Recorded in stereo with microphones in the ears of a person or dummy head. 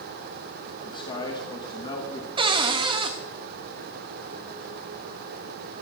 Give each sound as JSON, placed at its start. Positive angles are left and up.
{"t": 0.8, "sound": "a man speaking", "side_deg": 25, "distance_m": 3.0}
{"t": 2.4, "sound": "a cupboard door", "side_deg": -25, "distance_m": 1.3}